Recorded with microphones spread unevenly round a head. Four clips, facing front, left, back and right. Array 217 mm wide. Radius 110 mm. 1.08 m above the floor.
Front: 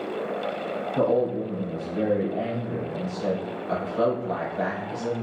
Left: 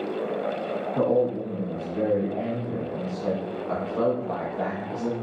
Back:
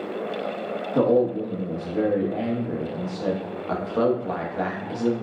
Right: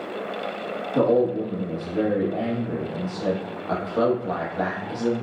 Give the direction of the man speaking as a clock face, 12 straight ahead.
5 o'clock.